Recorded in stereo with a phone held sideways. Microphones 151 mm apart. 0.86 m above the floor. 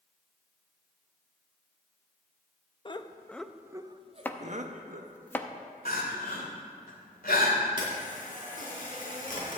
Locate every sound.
2.9 s laughter: 35° left (ahead or behind), 0.7 m; by 5.2 s 65° right (ahead or behind), 1.3 m
4.2 s chopping: 15° left (ahead or behind), 0.6 m
5.8 s crying: 80° left, 2.5 m
7.8 s a camera shutter: 60° left (ahead or behind), 4.5 m